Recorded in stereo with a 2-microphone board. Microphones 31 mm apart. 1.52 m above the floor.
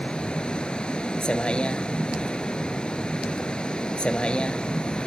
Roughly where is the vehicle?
Left.